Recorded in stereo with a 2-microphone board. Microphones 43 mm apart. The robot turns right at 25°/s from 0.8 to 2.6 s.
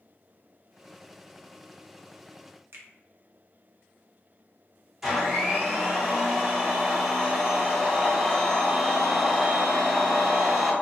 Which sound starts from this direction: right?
A finger snap, at 2.7 s.